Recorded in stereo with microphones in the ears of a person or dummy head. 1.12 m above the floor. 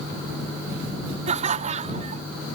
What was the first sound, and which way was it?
Laughter, 40° right (ahead or behind).